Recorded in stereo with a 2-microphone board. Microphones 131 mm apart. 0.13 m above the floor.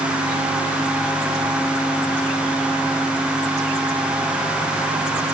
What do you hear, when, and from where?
Only background noise.